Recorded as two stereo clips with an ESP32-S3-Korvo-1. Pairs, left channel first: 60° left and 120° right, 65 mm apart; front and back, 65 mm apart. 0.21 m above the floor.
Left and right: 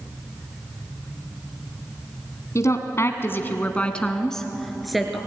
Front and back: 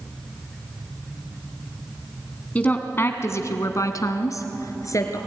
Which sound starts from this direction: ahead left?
A woman speaking, at 2.5 s.